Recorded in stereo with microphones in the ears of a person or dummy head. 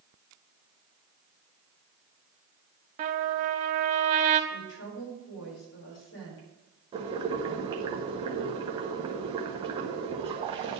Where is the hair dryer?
No hair dryer in this recording.